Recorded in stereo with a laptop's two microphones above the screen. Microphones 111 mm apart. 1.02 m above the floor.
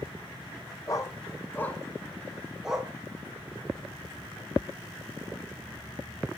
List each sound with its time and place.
0.9 s a dog barking: 35° left (ahead or behind), 1.3 m; by 2.9 s 10° right (ahead or behind), 1.6 m